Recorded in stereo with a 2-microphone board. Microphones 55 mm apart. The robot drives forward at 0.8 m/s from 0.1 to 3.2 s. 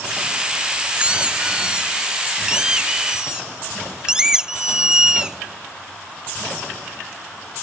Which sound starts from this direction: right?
A squeak, at 0.9 s.